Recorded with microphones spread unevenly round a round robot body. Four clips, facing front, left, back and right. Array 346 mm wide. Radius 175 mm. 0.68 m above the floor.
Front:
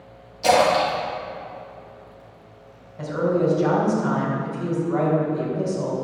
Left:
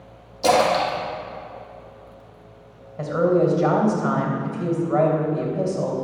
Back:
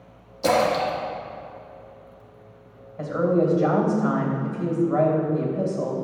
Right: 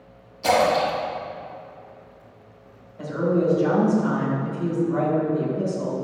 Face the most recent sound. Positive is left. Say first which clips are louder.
# left 4 dB, even
turn(degrees=95)